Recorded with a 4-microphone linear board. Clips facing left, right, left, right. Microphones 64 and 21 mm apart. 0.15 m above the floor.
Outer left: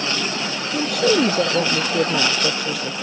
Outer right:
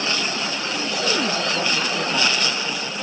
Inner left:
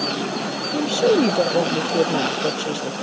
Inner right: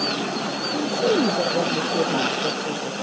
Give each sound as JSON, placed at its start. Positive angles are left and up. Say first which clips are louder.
{"t": 0.7, "sound": "a woman speaking", "louder": "outer left 7 dB, inner left 4 dB", "side_deg": 60}